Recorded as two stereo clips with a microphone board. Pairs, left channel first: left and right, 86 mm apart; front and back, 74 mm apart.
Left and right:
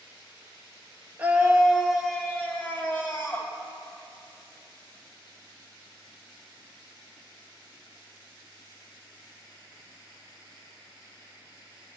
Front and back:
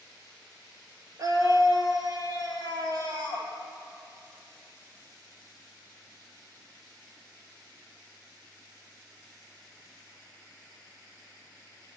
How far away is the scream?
About 2 m.